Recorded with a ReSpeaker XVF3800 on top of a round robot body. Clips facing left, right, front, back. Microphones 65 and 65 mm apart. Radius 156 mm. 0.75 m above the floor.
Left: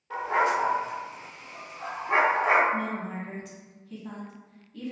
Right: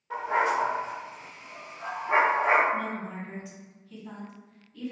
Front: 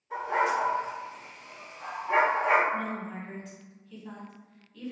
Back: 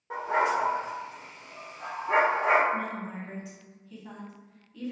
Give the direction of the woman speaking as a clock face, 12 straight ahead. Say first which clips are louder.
Left 1 dB, even; 9 o'clock.